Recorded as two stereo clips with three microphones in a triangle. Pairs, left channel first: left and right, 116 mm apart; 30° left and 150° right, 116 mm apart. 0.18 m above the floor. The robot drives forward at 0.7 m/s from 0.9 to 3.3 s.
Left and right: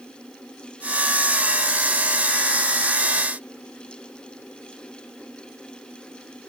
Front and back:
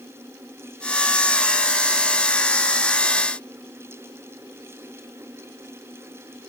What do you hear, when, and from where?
Only background noise.